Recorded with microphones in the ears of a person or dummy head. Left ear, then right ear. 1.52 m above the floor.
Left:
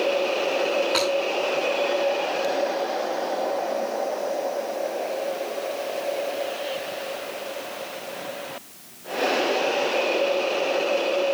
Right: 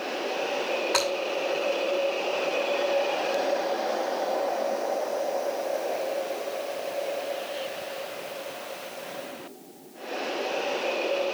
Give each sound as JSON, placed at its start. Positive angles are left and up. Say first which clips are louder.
{"t": 0.9, "sound": "breaking glass", "louder": "right 1 dB", "side_deg": -25, "distance_m": 6.5}